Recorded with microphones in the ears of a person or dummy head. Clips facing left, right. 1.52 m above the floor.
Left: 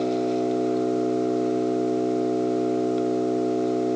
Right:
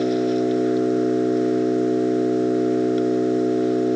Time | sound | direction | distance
0.0 | an engine running | 15° right (ahead or behind) | ?